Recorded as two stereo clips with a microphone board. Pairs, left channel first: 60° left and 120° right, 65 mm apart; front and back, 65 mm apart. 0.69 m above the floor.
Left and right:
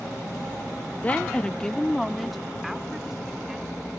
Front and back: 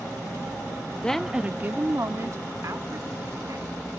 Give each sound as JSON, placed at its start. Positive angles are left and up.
{"t": 1.0, "sound": "a woman speaking", "azimuth_deg": 45}